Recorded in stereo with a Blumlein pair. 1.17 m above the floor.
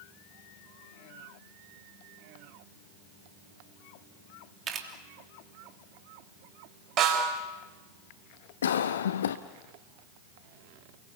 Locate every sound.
4.7 s a camera shutter: 25° right, 3 m
7.0 s a snare drum: 30° right, 5.5 m
8.6 s a cough: 65° left, 0.7 m